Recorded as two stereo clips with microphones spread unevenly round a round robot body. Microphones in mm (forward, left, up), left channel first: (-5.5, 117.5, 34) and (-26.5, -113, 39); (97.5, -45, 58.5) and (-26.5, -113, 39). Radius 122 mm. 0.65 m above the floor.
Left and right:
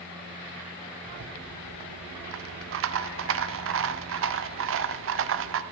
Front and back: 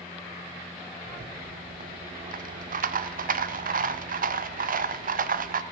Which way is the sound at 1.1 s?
130° right.